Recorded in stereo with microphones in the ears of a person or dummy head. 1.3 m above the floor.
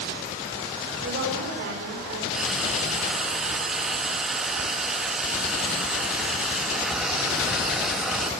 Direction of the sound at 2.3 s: Centre (ahead or behind).